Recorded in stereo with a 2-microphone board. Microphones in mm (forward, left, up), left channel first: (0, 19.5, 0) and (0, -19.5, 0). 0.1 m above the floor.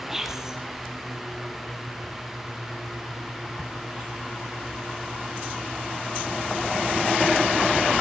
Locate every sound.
0.1 s whispering: 10° right (ahead or behind), 3 m